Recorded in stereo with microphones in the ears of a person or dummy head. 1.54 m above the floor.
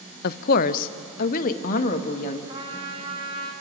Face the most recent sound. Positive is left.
turn(degrees=-20)  # may be behind; listen again after turning